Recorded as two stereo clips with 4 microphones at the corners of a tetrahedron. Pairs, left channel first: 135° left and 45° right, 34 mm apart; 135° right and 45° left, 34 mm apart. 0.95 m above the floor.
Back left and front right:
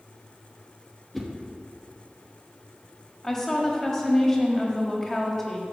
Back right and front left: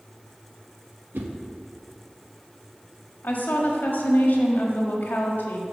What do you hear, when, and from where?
1.1 s a whoosh: 50° left, 0.9 m
3.2 s a woman speaking: 150° right, 1.4 m